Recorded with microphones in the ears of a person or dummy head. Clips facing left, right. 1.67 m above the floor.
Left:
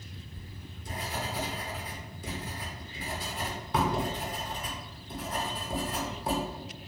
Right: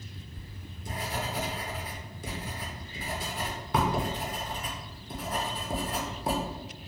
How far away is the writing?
About 0.8 m.